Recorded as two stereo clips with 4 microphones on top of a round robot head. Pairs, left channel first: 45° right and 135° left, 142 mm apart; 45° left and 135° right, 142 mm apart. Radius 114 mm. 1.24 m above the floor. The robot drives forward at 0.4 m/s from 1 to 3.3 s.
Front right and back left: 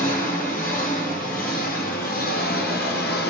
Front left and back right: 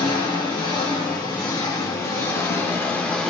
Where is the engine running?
15° right, 1.5 m; by 3.3 s 40° right, 0.8 m.